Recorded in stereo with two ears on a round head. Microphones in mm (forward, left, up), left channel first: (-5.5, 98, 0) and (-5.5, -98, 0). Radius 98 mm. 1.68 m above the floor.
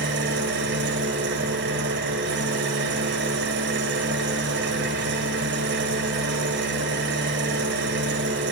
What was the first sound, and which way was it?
An engine running, 55° right (ahead or behind).